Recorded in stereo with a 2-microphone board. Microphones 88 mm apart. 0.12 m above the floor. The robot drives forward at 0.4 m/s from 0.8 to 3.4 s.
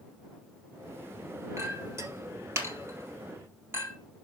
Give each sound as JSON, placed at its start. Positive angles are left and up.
{"t": 1.6, "sound": "a clink", "side_deg": -35, "distance_m": 2.0}